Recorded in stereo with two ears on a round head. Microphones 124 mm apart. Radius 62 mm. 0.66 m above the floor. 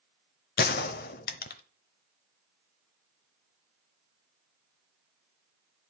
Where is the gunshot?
70° left (ahead or behind), 0.8 m.